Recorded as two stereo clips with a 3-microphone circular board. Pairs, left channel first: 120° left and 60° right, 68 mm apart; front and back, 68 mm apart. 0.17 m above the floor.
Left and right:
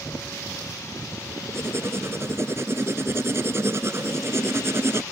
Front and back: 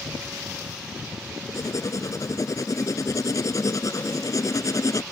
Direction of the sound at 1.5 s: 20° right.